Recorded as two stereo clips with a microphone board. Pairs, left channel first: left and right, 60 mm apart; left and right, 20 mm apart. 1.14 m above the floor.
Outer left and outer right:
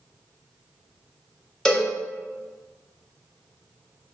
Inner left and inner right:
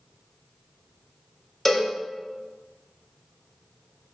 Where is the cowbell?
10° left (ahead or behind), 0.7 m.